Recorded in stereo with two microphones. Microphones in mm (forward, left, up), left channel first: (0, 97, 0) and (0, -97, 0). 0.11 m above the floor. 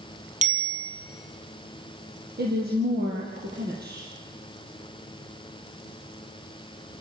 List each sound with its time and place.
0.4 s a bicycle bell: 40° right (ahead or behind), 2.5 m
2.4 s a woman speaking: 55° right (ahead or behind), 3.5 m